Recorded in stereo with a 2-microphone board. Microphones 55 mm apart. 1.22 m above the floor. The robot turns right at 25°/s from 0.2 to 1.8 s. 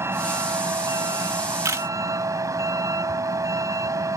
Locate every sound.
0.0 s a vehicle: 130° right; by 4.2 s 90° right
1.6 s a camera shutter: 75° right (ahead or behind)